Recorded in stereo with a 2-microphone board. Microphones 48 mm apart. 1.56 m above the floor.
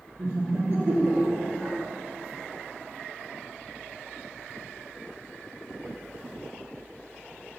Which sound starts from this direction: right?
Laughter, at 0.2 s.